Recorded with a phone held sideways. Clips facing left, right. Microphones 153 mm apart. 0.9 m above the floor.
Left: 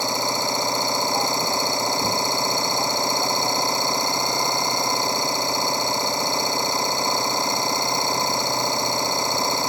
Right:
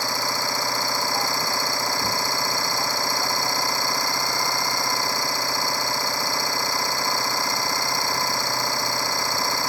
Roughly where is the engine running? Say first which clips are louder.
Left 3 dB; left.